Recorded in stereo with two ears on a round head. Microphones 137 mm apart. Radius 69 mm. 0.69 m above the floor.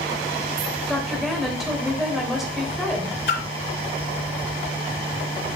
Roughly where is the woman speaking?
Centre.